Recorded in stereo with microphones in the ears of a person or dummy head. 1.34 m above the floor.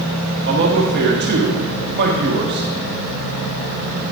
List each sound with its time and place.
0.5 s a man speaking: 50° right (ahead or behind), 1.3 m